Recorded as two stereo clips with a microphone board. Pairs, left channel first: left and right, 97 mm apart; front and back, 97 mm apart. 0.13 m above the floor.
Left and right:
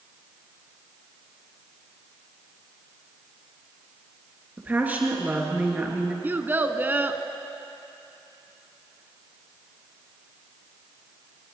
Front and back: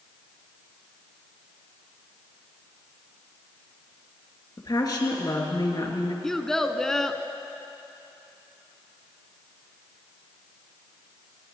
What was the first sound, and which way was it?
A woman speaking, 25° right.